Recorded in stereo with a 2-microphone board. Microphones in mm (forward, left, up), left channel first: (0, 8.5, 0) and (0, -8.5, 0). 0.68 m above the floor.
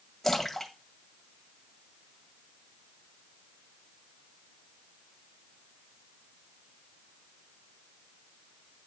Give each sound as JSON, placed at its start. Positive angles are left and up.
{"t": 0.2, "sound": "a splash", "side_deg": 15, "distance_m": 1.8}